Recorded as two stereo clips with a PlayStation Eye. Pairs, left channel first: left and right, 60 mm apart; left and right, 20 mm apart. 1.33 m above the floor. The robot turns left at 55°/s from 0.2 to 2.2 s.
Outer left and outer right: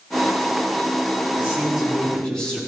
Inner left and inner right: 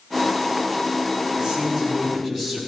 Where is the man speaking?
150° right, 4 m; by 2.6 s 165° left, 4 m.